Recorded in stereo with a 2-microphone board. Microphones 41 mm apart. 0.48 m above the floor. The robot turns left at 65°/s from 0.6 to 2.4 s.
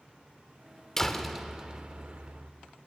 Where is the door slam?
15° left, 1.1 m; by 2.5 s 75° right, 1.1 m.